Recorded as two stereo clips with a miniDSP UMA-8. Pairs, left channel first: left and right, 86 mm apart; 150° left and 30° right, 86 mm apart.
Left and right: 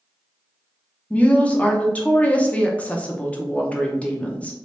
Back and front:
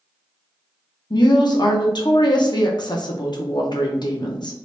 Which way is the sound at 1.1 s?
160° left.